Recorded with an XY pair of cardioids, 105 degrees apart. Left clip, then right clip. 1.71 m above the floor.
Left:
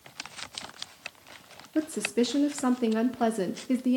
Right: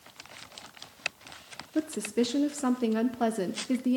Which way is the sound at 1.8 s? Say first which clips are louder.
Left 2 dB; 10° left.